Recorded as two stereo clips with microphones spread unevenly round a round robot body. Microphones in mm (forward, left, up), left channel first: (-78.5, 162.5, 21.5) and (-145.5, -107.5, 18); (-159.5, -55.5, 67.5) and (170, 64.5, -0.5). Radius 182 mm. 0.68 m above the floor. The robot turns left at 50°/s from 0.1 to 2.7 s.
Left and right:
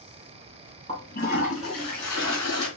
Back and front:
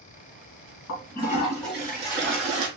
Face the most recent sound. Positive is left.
turn(degrees=60)